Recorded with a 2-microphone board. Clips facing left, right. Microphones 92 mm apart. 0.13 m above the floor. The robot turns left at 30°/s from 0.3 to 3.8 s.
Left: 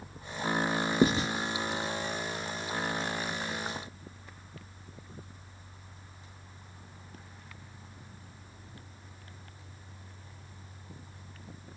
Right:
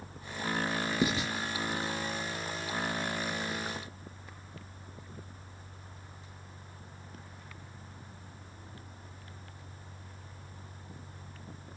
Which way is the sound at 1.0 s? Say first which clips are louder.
Left 6 dB; 45° left (ahead or behind).